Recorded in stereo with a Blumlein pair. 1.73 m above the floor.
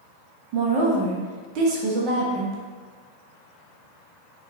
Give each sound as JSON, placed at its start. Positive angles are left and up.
{"t": 0.5, "sound": "a woman speaking", "azimuth_deg": -40, "distance_m": 0.9}